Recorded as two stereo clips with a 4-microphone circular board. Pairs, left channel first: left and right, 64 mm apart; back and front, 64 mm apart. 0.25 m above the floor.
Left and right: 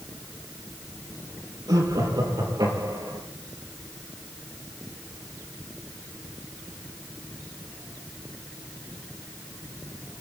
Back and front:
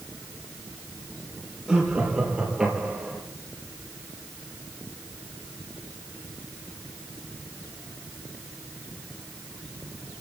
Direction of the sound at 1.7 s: 80° right.